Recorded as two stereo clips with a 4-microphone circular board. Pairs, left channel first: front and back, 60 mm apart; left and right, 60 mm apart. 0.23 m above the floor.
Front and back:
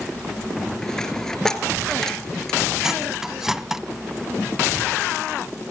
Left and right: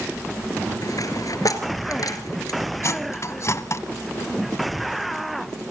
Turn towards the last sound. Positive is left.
turn(degrees=100)